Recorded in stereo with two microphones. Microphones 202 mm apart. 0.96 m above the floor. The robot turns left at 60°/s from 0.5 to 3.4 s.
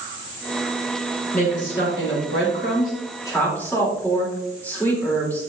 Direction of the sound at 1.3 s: 135° left.